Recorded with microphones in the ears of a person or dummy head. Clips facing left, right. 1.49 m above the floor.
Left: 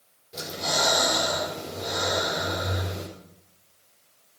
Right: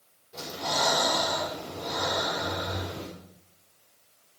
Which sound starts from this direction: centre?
Breathing, at 0.3 s.